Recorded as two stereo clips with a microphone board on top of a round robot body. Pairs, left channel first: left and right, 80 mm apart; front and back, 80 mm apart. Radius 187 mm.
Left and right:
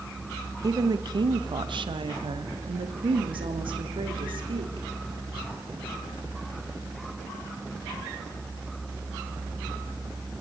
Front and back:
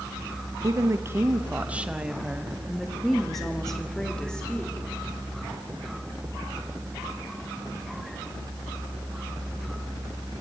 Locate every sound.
0.6 s a woman speaking: 135° right, 1.3 m; by 4.9 s 80° right, 4 m